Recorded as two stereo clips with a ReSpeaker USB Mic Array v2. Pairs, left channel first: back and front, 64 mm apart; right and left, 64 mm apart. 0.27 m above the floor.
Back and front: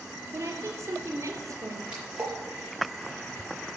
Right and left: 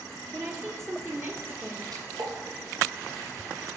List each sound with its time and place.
0.3 s a woman speaking: 50° left, 4.5 m; by 1.8 s 35° left, 4 m
1.9 s a splash: 70° left, 6.5 m